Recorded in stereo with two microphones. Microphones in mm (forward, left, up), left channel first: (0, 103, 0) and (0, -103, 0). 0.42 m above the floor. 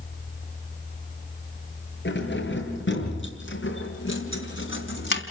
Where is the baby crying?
I don't hear a baby crying.